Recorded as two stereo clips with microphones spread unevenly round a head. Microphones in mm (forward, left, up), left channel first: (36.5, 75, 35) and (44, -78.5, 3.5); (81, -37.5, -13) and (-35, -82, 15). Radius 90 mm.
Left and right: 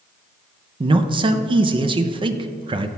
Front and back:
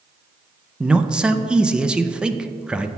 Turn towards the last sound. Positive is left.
turn(degrees=-65)